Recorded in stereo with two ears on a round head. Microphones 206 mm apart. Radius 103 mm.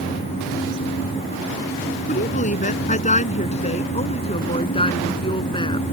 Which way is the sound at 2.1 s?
30° left (ahead or behind).